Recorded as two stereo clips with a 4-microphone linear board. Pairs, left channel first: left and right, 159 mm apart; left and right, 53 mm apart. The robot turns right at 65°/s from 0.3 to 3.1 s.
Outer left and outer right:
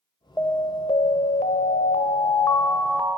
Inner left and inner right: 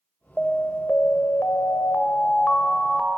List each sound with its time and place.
0.4 s an alarm: 20° left, 0.8 m; by 3.2 s 165° right, 0.8 m